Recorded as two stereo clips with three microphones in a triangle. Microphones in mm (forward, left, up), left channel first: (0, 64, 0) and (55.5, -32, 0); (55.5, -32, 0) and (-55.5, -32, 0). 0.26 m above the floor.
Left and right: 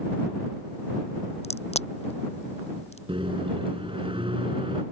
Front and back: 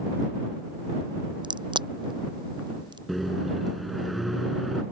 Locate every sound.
1.4 s a crack: 135° left
3.1 s a microwave: 90° right